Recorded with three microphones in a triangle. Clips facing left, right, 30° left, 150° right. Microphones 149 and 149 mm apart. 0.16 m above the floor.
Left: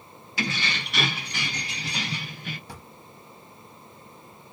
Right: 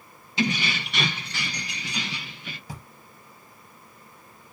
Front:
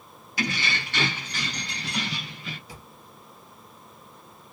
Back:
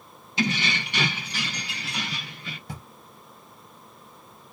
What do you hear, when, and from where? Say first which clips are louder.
0.4 s keys jangling: right 5 dB, back 3 dB; 120° right, 0.9 m; by 2.6 s 115° left, 1.4 m
2.7 s a drawer: right 2 dB, back 5 dB; 170° right, 1.6 m